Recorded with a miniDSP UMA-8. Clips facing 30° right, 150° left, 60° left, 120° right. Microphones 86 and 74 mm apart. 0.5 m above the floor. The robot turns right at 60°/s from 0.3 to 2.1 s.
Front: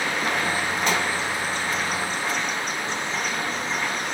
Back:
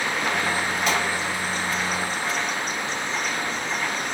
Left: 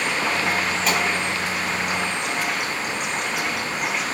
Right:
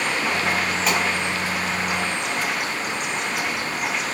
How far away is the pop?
About 1.6 m.